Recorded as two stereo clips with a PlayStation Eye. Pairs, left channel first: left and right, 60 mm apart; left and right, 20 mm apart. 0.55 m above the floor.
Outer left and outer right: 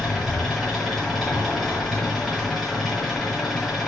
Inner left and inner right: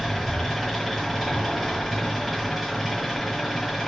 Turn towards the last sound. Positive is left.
turn(degrees=0)  # may be behind; listen again after turning